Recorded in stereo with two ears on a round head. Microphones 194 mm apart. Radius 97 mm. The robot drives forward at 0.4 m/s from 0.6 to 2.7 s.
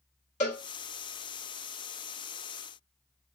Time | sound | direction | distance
0.4 | a cowbell | 35° left (ahead or behind) | 1.9 m